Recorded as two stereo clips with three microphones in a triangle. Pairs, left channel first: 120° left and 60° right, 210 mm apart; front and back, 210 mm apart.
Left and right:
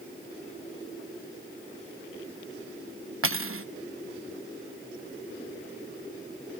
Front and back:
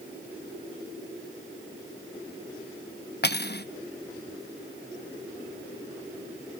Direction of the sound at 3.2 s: 45° right.